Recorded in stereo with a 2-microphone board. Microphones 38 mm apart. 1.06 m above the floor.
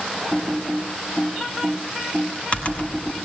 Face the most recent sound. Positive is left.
turn(degrees=35)  # may be behind; listen again after turning